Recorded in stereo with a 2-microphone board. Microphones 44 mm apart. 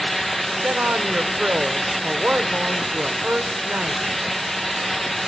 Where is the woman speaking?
35° right (ahead or behind), 1.0 m.